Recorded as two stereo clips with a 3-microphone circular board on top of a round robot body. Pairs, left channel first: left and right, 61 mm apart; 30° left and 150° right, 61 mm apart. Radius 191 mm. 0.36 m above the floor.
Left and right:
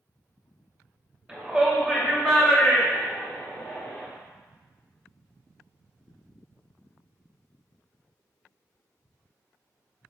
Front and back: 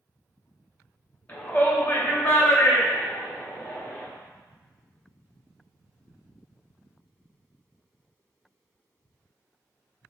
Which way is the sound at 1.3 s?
15° right.